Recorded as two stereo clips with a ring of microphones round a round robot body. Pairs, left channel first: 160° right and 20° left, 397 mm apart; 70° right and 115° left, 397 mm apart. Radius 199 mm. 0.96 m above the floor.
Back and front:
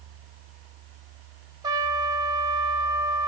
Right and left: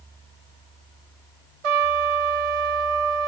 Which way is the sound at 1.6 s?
105° left.